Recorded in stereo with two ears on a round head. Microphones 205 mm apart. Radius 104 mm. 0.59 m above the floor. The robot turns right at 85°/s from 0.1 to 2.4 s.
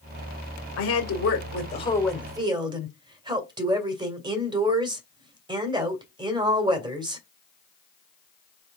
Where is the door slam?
I don't hear a door slam.